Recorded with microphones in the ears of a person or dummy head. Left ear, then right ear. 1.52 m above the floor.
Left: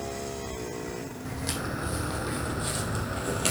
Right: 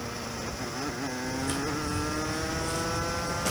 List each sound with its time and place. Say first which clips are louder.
1.2 s footsteps: right 1 dB; 60° left (ahead or behind), 4.5 m; by 3.5 s 55° left (ahead or behind), 2.5 m